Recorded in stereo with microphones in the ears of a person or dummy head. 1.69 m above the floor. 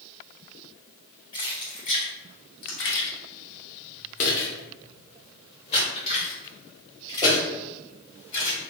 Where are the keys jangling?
25° left (ahead or behind), 2 m.